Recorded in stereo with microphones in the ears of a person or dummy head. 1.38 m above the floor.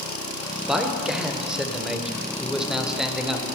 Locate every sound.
0.7 s a man speaking: centre (ahead or behind), 0.7 m